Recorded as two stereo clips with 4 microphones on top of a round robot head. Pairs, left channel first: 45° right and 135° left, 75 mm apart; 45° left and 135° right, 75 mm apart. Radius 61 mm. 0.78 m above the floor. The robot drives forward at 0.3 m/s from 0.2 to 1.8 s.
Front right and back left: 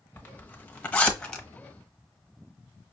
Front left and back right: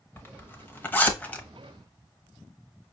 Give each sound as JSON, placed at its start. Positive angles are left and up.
{"t": 0.2, "sound": "a zipper", "azimuth_deg": 5, "distance_m": 1.1}